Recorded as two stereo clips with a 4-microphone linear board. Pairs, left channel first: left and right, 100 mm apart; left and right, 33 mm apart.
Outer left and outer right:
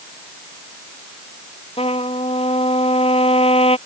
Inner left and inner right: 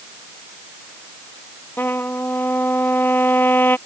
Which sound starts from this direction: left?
A trumpet, at 1.8 s.